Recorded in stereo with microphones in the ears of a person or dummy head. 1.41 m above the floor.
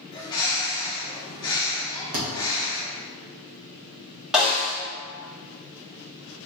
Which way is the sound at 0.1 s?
20° left (ahead or behind).